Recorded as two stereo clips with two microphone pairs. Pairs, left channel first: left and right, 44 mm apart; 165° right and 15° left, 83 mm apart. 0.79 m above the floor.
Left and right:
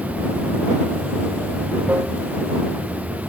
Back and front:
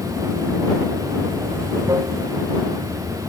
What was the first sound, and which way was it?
Running water, 35° right.